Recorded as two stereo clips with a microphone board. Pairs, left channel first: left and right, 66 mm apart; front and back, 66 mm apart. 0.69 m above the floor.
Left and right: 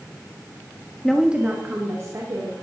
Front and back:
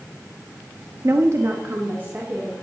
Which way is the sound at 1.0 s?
170° left.